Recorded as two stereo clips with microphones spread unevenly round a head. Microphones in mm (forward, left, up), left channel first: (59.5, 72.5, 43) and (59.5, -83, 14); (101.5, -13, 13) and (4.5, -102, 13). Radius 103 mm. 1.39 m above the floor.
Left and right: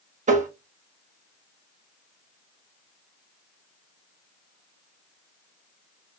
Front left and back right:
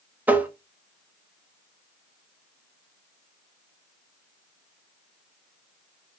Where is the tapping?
60° right, 0.9 m.